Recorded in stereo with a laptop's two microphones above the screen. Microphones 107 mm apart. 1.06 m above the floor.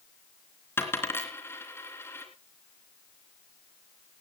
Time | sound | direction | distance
0.8 | a dropped coin | 20° left (ahead or behind) | 3.5 m